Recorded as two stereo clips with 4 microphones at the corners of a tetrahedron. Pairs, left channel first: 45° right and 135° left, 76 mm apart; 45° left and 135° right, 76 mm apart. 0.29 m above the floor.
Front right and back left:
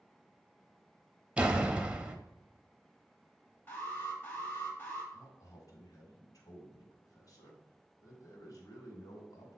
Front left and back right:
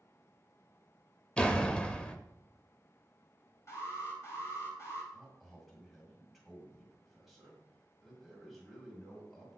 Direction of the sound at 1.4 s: 95° left.